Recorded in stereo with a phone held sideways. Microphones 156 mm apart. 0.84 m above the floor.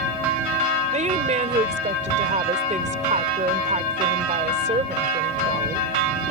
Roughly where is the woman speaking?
Right.